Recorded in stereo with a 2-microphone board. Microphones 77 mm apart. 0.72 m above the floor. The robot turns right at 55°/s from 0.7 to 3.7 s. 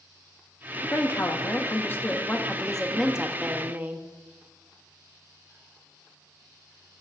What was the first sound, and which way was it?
A woman speaking, 70° left.